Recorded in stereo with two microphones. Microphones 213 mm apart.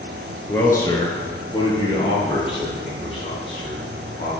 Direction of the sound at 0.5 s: 10° left (ahead or behind).